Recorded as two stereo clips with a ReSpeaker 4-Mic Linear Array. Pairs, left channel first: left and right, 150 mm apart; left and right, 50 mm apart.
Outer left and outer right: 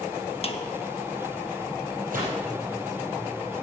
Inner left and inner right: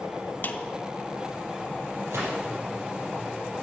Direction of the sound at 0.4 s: 45° left (ahead or behind).